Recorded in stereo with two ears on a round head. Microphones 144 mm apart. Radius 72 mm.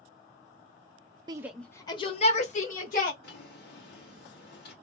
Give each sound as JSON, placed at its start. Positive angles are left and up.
{"t": 1.3, "sound": "a shout", "side_deg": -25, "distance_m": 0.5}
{"t": 3.2, "sound": "a drawer", "side_deg": 65, "distance_m": 1.8}